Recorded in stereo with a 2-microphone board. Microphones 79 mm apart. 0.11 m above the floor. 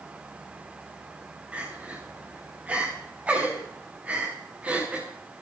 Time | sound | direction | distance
1.5 | crying | 15° right (ahead or behind) | 6 m